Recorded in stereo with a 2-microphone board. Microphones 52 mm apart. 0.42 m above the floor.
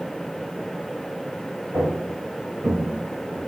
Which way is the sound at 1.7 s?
85° right.